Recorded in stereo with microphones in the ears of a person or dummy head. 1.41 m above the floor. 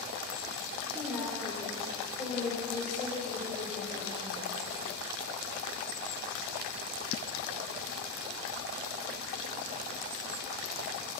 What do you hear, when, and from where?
0.9 s a woman speaking: centre (ahead or behind), 4.5 m; by 4.6 s 20° left (ahead or behind), 7 m